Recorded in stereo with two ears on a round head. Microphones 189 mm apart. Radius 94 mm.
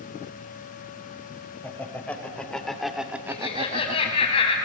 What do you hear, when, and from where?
1.6 s laughter: 10° left (ahead or behind), 3.5 m; by 4.3 s 35° right (ahead or behind), 1.1 m
3.3 s laughter: 30° left (ahead or behind), 3.5 m